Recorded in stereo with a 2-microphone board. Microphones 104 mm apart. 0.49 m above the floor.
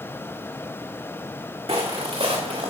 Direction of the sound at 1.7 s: 70° right (ahead or behind).